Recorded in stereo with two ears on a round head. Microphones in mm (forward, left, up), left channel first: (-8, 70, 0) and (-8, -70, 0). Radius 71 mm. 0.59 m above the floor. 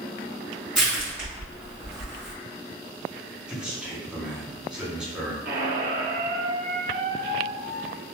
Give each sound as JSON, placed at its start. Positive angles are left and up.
{"t": 0.8, "sound": "crushing", "side_deg": -5, "distance_m": 1.7}
{"t": 3.5, "sound": "a man speaking", "side_deg": -5, "distance_m": 0.8}
{"t": 5.5, "sound": "a squeak", "side_deg": -75, "distance_m": 1.1}